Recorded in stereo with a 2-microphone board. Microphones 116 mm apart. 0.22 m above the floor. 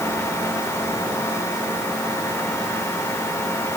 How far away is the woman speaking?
No woman speaking in this recording.